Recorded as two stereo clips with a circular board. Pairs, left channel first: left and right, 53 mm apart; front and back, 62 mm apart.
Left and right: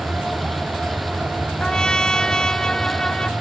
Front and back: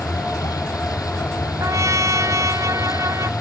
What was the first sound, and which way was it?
A vehicle, straight ahead.